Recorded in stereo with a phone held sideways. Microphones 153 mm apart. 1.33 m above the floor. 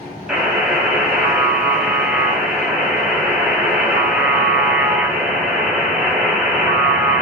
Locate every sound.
0.3 s a buzzer: 5° right (ahead or behind), 1.8 m